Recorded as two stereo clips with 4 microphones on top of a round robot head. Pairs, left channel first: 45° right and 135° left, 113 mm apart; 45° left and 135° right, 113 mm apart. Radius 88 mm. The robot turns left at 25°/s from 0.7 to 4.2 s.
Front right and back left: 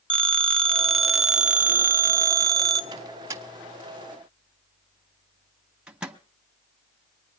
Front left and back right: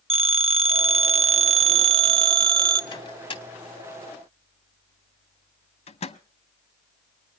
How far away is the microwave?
About 0.9 m.